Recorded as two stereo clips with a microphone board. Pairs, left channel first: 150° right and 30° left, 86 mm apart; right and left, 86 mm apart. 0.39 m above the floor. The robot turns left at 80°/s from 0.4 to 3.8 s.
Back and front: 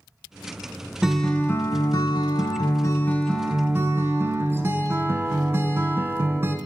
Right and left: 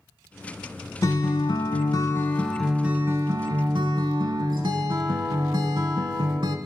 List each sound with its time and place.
1.0 s a guitar: 50° right, 0.5 m; by 6.6 s 85° left, 0.5 m